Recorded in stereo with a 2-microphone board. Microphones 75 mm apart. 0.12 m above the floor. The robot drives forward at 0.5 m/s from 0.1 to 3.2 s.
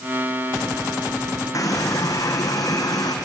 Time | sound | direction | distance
1.5 | a running tap | 45° left (ahead or behind) | 4.5 m